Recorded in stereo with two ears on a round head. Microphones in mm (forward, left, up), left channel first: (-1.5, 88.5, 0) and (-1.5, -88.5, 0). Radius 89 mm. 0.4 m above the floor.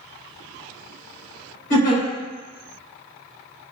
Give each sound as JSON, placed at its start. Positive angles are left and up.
{"t": 1.7, "sound": "a giggle", "side_deg": 55, "distance_m": 2.0}